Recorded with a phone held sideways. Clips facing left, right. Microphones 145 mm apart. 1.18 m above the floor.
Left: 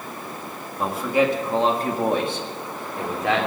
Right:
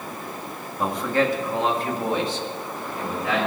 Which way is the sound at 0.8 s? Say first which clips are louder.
Left 2 dB; centre (ahead or behind).